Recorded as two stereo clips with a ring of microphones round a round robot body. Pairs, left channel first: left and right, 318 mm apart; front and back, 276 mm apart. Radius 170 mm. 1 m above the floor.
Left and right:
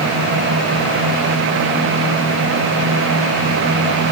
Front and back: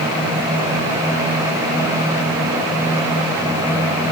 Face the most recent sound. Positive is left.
No sound to turn to.